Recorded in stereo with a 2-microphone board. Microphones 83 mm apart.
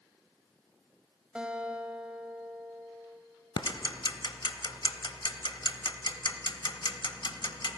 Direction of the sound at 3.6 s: 65° left (ahead or behind).